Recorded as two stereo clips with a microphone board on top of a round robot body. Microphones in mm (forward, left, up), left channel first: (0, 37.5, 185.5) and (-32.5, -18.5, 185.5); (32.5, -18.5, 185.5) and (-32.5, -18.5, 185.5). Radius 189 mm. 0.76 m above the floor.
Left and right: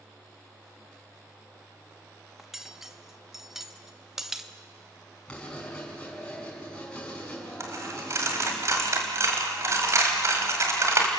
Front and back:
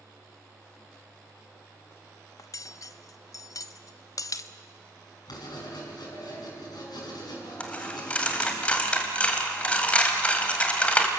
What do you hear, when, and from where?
2.4 s cutlery clinking: 35° right, 0.7 m
5.3 s writing: 15° right, 6 m
7.6 s a dropped coin: 70° right, 1.8 m